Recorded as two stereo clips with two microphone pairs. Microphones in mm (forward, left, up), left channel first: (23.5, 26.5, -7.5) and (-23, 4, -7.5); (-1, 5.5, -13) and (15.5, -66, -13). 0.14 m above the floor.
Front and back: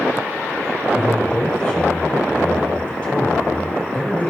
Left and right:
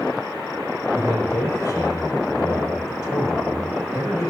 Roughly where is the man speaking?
Left.